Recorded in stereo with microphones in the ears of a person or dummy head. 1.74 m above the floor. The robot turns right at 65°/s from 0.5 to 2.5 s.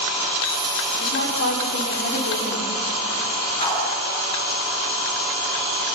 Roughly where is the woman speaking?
Ahead left.